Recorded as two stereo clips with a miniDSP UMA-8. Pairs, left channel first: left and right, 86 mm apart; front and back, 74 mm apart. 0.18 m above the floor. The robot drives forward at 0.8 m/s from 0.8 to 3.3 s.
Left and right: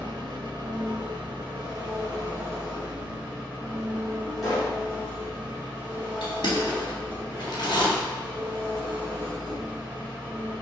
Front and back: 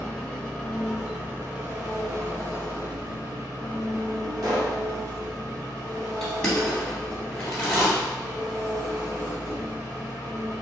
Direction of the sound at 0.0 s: 80° right.